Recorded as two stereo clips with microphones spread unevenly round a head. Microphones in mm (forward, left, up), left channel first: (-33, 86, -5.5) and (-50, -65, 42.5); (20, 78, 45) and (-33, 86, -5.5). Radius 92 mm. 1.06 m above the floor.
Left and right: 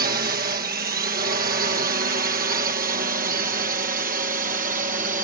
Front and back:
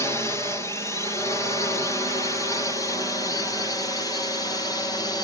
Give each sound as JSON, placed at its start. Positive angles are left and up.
{"t": 0.0, "sound": "a drone", "azimuth_deg": -100}